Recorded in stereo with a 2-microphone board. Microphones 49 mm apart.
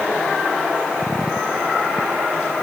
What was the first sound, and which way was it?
Only background noise.